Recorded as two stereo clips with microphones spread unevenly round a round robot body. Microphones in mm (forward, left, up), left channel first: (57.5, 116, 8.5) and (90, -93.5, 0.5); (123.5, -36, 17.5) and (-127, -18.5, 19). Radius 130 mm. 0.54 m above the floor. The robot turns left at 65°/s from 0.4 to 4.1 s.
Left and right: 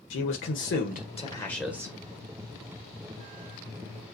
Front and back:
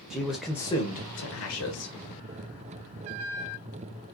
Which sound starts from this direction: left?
A man speaking, at 0.1 s.